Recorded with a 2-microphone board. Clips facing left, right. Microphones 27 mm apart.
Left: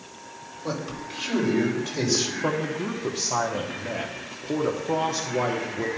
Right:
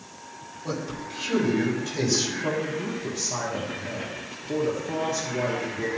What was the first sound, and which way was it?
A man speaking, 25° left (ahead or behind).